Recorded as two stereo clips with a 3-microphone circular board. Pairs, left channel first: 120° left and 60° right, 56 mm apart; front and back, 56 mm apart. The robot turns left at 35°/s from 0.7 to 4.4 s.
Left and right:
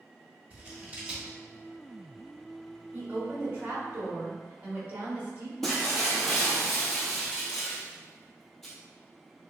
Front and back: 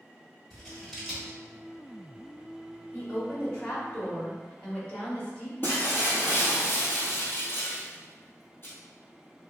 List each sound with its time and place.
0.5 s scissors: 80° right, 1.0 m; by 1.4 s 105° right, 1.0 m
2.9 s a woman speaking: 10° right, 0.9 m; by 5.5 s 65° right, 0.9 m
5.6 s breaking glass: 40° left, 1.1 m